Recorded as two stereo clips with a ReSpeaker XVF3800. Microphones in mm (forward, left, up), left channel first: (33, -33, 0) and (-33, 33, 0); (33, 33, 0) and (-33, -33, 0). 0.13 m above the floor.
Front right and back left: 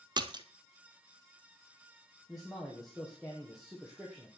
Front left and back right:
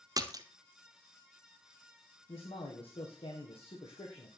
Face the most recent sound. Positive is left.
turn(degrees=45)